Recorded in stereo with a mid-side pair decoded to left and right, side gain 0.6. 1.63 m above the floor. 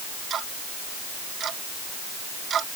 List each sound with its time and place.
0.3 s ticking: 40° right